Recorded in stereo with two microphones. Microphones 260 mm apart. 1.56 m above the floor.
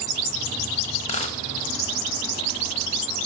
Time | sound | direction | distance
1.0 | a dropped coin | 25° left (ahead or behind) | 0.9 m